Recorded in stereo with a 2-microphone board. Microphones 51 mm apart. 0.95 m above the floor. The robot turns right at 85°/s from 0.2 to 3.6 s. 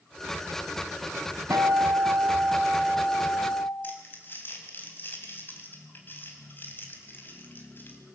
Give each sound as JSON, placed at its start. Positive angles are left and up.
{"t": 1.5, "sound": "a guitar", "azimuth_deg": -120, "distance_m": 3.0}
{"t": 3.8, "sound": "crumpling", "side_deg": 40, "distance_m": 3.5}